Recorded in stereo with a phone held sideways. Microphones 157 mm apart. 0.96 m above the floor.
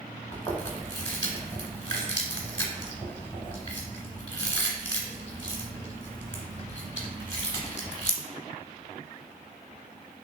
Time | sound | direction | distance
0.3 | chewing | 25° left (ahead or behind) | 1.0 m